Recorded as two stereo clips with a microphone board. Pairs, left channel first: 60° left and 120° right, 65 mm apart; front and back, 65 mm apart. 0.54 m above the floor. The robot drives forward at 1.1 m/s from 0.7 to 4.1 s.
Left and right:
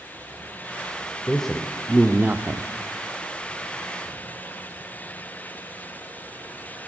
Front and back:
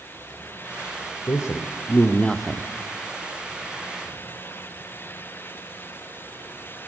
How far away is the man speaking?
About 1.5 m.